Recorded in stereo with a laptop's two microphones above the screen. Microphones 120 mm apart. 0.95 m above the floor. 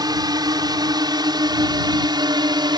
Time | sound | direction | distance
0.0 | a drone | 35° right (ahead or behind) | ?